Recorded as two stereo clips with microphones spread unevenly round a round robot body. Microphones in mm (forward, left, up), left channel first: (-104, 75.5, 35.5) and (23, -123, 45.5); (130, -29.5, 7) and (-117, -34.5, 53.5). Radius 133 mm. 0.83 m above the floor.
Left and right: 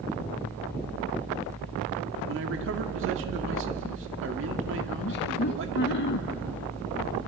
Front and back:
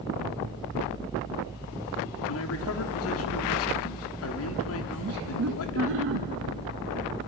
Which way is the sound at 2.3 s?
15° right.